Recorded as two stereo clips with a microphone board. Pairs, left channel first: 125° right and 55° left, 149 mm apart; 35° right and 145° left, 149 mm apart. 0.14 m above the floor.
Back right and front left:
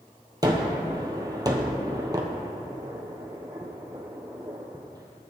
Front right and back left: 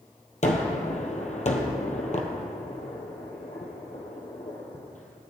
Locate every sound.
0.4 s a gunshot: 5° right, 1.2 m